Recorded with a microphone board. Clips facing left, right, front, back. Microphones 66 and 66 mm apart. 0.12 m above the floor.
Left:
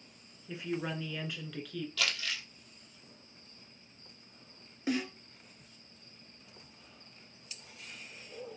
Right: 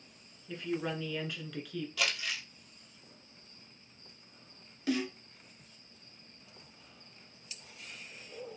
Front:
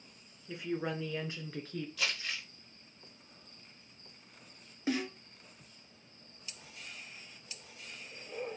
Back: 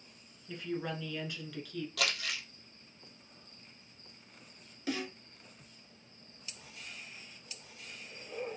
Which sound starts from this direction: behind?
Crumpling, at 2.0 s.